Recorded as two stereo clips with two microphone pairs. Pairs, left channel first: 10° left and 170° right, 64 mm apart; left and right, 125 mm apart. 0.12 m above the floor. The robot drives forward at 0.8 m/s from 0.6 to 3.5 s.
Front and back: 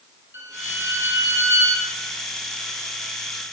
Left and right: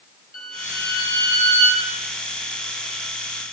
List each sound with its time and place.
0.3 s a violin: 155° left, 3 m; by 1.9 s 165° left, 4 m